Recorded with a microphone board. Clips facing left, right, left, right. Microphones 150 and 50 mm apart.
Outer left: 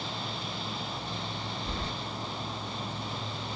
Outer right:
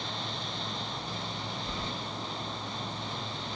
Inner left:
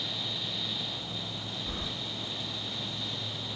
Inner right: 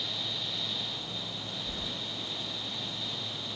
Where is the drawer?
I don't hear a drawer.